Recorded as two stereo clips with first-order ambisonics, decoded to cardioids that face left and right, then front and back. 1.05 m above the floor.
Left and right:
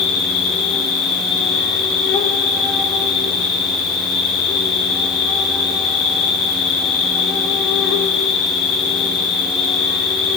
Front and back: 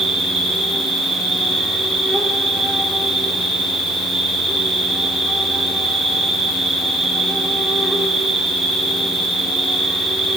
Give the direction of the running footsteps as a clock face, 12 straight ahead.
No running footsteps in this recording.